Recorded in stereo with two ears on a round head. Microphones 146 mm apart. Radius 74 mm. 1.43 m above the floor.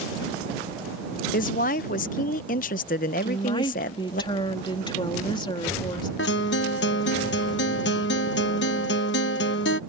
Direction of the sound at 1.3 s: 50° left (ahead or behind).